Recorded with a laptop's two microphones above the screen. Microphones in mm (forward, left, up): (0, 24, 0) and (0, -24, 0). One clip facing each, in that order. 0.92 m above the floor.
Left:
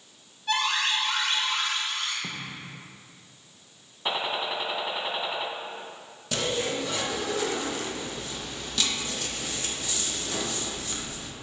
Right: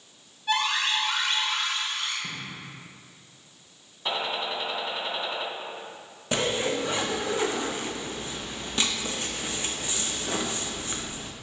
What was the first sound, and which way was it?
An alarm, 5° right (ahead or behind).